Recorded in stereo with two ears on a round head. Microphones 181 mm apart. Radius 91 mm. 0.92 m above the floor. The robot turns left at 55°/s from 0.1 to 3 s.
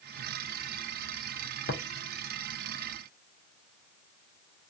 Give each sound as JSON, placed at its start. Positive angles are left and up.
{"t": 1.7, "sound": "tapping", "side_deg": 50, "distance_m": 0.6}